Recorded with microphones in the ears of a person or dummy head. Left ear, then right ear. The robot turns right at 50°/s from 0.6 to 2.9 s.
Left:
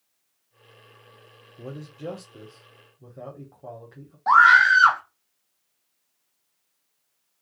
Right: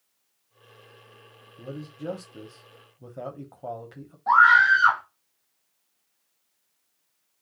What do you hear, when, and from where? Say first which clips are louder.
1.6 s a man speaking: left 1 dB; 145° left, 0.7 m; by 4.2 s 150° right, 0.7 m
4.3 s a scream: left 2 dB; 70° left (ahead or behind), 0.9 m